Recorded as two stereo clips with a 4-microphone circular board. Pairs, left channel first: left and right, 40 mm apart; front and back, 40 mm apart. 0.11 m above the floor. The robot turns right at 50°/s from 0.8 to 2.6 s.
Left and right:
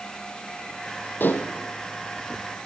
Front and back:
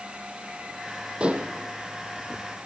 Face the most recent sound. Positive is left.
turn(degrees=-165)